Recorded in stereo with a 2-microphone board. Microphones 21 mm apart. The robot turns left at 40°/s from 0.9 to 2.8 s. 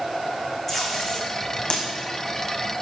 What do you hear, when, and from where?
0.7 s tape being pulled: 20° left (ahead or behind), 1.4 m; by 1.9 s 55° left (ahead or behind), 1.4 m